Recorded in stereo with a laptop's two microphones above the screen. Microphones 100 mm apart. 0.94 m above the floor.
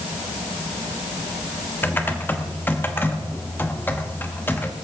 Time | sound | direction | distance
1.8 | typing on a keyboard | 20° left (ahead or behind) | 0.9 m